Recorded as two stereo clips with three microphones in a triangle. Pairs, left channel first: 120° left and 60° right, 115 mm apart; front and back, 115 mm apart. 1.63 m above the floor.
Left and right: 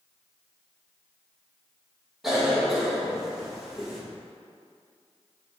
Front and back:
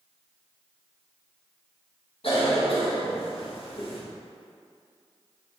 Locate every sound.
2.2 s a cough: 25° left, 1.9 m